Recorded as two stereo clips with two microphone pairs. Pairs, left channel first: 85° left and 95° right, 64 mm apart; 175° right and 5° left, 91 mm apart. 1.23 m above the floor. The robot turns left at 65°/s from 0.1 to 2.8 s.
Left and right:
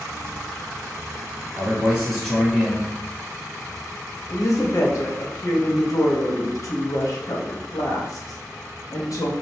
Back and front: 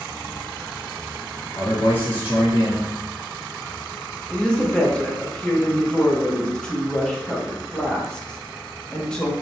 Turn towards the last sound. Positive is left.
turn(degrees=105)